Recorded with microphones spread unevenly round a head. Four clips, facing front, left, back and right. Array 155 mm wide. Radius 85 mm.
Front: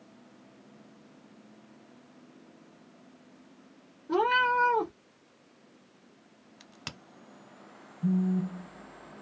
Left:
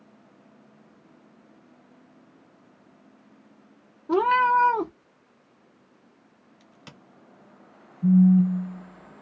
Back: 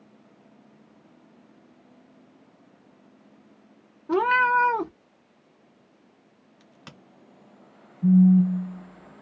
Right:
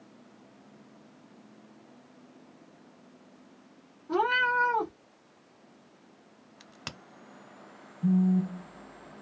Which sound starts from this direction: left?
A cat meowing, at 4.1 s.